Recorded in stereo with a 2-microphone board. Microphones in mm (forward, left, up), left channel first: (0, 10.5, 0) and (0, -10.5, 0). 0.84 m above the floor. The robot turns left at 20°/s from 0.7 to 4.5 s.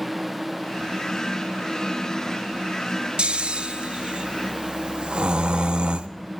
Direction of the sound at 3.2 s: 60° right (ahead or behind).